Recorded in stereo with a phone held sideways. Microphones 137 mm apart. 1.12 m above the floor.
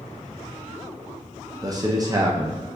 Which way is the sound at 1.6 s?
25° right (ahead or behind).